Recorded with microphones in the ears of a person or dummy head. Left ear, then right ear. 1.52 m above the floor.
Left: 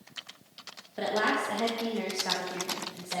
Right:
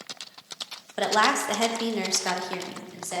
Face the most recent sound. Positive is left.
turn(degrees=-70)  # may be behind; listen again after turning